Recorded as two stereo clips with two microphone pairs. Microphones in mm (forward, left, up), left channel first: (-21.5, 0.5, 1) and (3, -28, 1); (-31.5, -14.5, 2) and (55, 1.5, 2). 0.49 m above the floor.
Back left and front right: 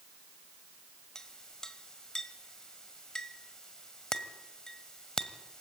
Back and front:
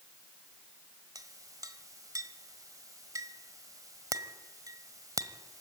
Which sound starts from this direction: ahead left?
A clink, at 1.1 s.